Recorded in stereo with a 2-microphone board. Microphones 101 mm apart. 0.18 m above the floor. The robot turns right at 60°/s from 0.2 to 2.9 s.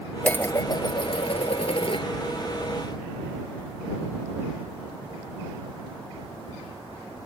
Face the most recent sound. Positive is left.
turn(degrees=175)